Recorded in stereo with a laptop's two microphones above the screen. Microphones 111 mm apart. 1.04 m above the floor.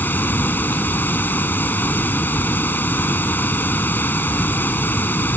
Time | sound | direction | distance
0.0 | running water | 20° left (ahead or behind) | ?